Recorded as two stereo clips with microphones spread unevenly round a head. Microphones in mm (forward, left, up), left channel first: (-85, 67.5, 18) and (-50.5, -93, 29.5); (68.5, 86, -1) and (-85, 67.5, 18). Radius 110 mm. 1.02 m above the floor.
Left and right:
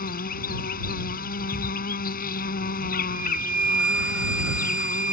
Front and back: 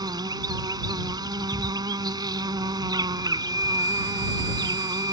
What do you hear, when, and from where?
0.0 s an insect: 125° left
3.1 s a flute: 160° right